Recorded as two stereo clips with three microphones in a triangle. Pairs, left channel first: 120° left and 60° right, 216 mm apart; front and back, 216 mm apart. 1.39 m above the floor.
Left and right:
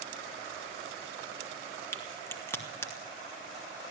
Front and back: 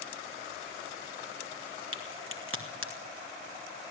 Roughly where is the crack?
Behind.